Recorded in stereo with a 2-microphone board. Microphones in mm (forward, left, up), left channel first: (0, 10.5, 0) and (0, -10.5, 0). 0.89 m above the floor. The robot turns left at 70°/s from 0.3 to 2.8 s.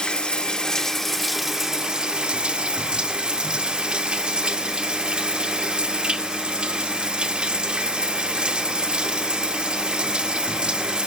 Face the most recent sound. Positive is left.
turn(degrees=-105)